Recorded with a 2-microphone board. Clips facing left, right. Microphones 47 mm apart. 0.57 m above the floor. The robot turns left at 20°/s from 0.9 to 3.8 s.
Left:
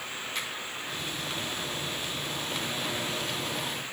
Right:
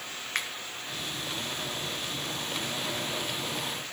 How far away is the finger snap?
About 1.0 m.